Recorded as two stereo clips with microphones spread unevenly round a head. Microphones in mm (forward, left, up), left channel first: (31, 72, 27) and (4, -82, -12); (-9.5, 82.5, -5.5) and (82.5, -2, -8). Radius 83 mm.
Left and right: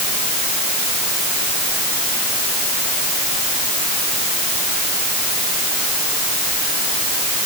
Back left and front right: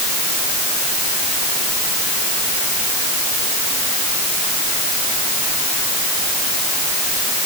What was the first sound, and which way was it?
Only background noise.